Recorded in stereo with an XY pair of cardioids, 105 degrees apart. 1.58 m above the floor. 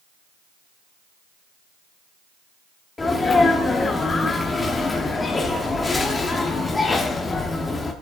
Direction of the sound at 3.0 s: 30° left.